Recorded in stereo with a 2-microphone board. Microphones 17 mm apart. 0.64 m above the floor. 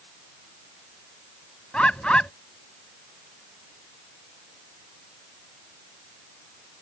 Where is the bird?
75° left (ahead or behind).